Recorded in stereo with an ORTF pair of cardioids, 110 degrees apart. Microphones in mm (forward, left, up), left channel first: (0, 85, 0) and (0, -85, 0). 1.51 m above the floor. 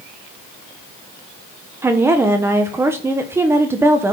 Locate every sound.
1.8 s a woman speaking: 15° right, 1.2 m